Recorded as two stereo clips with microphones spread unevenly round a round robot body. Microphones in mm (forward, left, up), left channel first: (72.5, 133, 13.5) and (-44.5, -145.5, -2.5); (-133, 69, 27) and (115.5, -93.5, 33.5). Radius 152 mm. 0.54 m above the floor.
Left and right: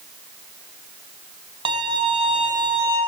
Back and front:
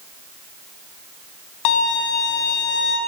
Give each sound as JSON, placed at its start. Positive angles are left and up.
{"t": 1.6, "sound": "a violin", "azimuth_deg": 175, "distance_m": 0.9}